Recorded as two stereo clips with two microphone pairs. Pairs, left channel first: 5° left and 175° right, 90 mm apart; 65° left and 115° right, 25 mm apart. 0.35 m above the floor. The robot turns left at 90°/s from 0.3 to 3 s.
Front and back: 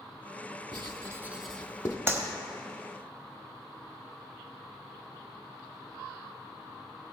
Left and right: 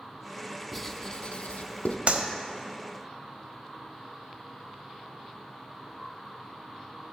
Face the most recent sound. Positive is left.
turn(degrees=160)